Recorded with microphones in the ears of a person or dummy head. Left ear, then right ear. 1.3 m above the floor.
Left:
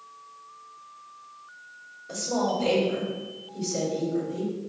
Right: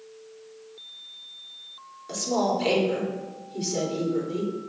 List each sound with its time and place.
2.1 s a woman speaking: 45° right (ahead or behind), 3 m